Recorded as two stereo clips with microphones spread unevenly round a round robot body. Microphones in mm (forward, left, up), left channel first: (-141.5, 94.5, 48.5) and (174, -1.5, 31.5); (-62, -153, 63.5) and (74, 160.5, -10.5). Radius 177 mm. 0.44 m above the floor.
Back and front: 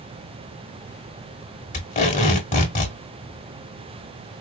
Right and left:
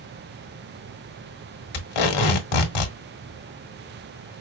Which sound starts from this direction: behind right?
Tape being pulled, at 1.7 s.